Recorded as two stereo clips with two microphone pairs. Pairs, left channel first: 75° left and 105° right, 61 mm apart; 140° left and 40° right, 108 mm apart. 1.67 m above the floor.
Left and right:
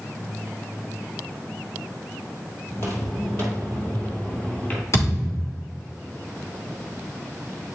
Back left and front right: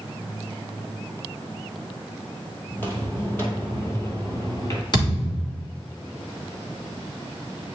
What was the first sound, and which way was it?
Footsteps, 75° left.